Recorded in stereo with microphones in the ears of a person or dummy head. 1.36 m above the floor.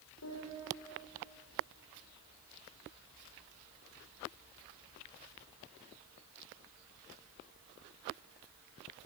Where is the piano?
75° left (ahead or behind), 5 m.